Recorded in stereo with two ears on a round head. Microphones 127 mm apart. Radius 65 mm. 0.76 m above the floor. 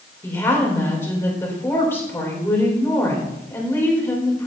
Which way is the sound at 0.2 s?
15° left (ahead or behind).